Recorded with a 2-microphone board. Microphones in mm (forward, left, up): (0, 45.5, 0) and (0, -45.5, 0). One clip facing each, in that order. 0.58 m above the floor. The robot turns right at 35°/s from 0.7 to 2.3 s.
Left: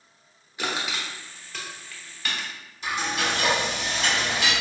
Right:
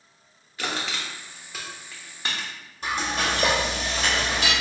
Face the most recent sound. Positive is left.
turn(degrees=-45)  # may be behind; listen again after turning